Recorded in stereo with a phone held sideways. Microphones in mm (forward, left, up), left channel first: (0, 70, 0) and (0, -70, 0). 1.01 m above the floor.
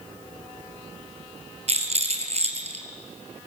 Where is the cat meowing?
No cat meowing in this recording.